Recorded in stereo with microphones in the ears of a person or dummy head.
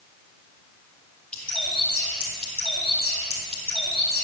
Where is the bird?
5° left (ahead or behind), 1.8 m.